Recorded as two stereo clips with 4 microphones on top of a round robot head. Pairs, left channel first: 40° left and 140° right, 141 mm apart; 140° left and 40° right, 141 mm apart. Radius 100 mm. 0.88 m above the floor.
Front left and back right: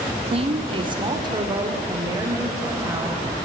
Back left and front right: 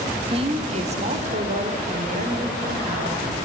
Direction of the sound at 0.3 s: 95° right.